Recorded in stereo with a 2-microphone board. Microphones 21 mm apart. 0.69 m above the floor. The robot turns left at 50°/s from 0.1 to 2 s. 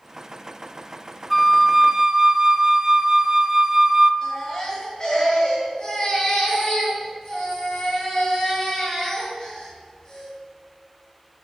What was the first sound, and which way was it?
A flute, straight ahead.